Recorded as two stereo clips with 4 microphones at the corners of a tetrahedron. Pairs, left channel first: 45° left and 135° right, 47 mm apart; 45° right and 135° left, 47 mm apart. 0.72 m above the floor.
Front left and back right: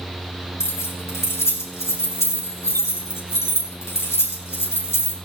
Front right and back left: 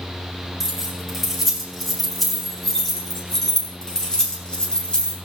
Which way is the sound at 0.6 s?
50° left.